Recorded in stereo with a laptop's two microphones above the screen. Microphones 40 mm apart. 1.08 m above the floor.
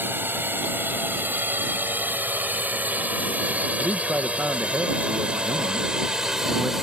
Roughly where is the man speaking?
Right.